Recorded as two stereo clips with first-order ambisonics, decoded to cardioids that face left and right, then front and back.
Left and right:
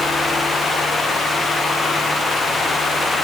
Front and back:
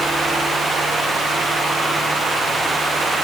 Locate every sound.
Only background noise.